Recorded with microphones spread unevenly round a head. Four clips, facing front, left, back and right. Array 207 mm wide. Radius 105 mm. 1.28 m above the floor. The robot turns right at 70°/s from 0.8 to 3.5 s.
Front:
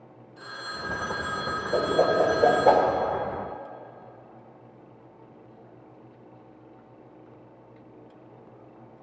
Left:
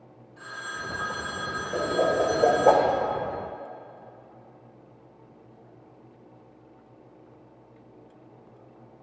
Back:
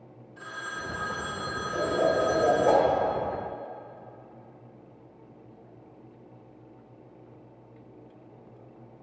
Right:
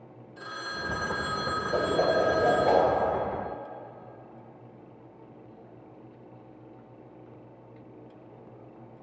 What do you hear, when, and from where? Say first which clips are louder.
0.4 s a phone ringing: even, even; 105° right, 2 m; by 2.7 s 30° left, 2 m
1.7 s a whoosh: left 1 dB, front 3 dB; 25° right, 2.0 m; by 2.9 s 55° left, 2.0 m